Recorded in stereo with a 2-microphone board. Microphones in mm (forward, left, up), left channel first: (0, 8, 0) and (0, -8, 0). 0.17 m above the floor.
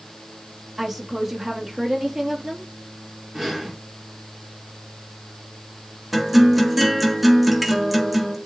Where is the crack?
I don't hear a crack.